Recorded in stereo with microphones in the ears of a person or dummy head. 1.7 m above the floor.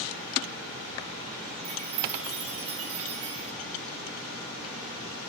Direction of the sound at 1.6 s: 30° right (ahead or behind).